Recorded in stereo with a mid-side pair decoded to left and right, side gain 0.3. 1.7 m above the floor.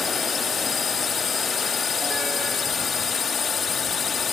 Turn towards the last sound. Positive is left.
turn(degrees=60)